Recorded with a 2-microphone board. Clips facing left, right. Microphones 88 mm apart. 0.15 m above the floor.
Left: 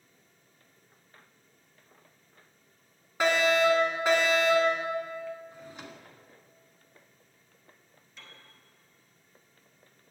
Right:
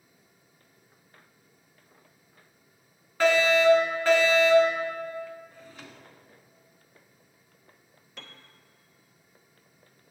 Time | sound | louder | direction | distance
3.2 | a fire alarm | right 3 dB | 15° left (ahead or behind) | 2 m
5.5 | a drawer | left 2 dB | 20° left (ahead or behind) | 0.7 m
8.2 | a piano | right 4 dB | 65° right (ahead or behind) | 0.7 m